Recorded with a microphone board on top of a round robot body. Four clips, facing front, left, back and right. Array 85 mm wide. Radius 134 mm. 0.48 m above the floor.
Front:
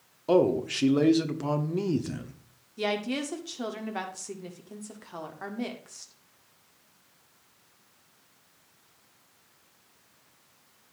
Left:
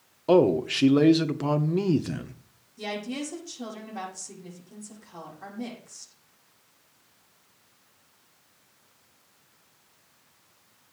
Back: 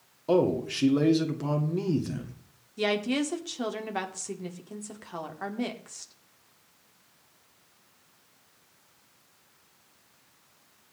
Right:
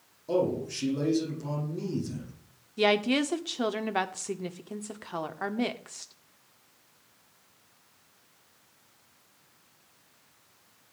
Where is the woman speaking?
95° right, 1.6 m.